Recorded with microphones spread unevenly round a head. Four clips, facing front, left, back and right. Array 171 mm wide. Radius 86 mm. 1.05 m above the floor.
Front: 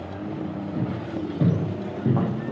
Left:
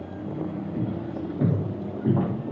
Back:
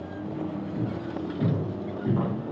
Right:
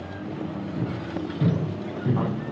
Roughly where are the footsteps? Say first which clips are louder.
Even, front 4 dB; ahead.